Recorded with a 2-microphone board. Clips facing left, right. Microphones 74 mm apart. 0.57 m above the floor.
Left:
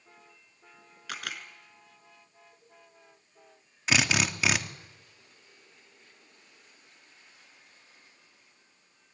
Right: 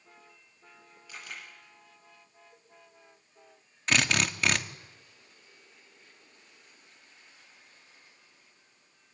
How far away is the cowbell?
About 10 m.